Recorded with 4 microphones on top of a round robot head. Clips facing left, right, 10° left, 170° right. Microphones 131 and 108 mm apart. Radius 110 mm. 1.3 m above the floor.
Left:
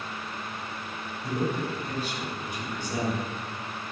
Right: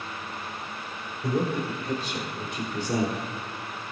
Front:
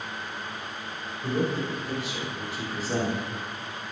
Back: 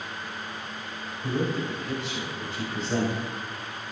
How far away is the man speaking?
About 4 m.